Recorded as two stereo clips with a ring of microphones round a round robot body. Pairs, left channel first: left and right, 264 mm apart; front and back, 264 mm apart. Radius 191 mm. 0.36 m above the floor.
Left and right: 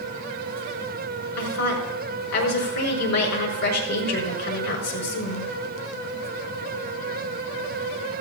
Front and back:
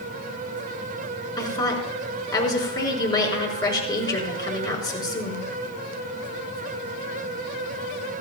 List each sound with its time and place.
1.4 s a woman speaking: 75° left, 5 m